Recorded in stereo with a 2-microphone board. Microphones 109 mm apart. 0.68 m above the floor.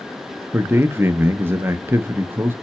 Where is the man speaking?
20° right (ahead or behind), 0.5 m.